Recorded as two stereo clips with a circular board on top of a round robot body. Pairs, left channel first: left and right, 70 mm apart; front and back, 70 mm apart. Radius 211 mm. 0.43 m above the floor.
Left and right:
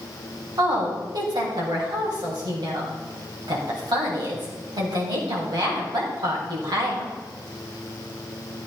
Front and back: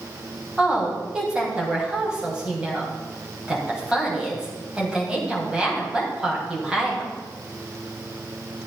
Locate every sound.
0.6 s a woman speaking: 105° right, 3.5 m